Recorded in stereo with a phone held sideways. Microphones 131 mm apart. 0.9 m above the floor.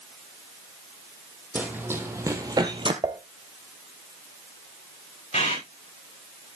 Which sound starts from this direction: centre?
Running footsteps, at 1.6 s.